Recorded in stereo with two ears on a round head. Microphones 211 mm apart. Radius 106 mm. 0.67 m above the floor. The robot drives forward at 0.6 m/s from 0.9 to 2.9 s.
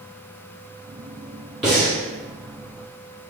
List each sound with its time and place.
1.6 s breathing: centre (ahead or behind), 2.0 m